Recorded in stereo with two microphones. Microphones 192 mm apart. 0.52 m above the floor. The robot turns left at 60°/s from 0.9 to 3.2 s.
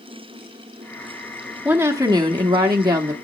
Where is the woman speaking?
10° right (ahead or behind), 1.0 m; by 3.1 s 20° right (ahead or behind), 1.0 m.